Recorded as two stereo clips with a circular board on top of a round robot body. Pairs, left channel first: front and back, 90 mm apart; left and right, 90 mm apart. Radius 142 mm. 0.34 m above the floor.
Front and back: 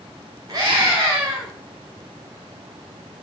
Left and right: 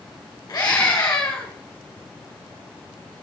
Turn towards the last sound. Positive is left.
turn(degrees=130)